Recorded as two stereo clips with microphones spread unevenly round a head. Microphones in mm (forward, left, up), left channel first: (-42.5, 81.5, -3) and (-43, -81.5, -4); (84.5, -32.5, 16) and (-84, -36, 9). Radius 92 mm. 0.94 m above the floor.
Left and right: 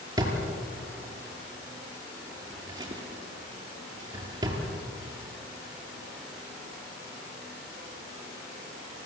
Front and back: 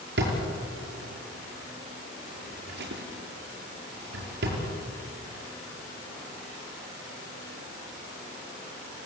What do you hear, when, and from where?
0.2 s a drawer: 160° right, 5.5 m